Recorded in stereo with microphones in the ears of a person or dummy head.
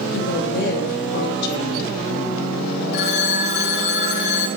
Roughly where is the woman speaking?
Left.